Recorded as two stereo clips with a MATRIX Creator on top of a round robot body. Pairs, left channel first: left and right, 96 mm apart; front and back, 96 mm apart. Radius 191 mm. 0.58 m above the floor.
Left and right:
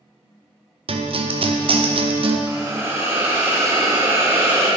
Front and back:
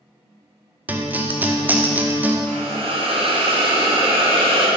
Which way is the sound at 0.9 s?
110° right.